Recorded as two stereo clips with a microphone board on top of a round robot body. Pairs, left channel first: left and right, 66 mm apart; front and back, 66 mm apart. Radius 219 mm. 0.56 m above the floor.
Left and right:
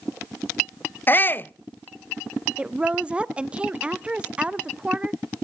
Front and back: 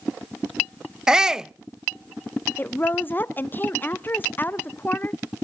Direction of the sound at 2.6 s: 30° right.